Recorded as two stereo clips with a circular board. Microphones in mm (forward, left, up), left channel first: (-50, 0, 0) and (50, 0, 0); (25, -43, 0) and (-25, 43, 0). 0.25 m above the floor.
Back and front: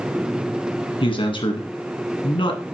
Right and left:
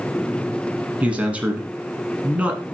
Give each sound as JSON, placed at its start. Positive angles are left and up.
{"t": 1.0, "sound": "a man speaking", "azimuth_deg": -165, "distance_m": 2.0}